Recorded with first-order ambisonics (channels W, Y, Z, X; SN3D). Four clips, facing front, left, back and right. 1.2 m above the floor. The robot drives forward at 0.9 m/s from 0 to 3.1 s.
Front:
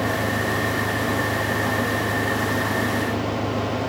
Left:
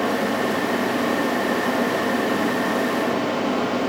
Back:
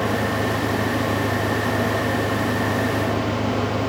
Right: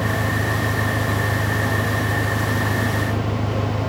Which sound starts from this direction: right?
An engine running, at 0.0 s.